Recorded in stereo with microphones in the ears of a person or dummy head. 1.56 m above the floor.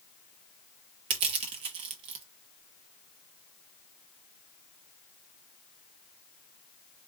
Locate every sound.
1.1 s crushing: 40° right (ahead or behind), 1.1 m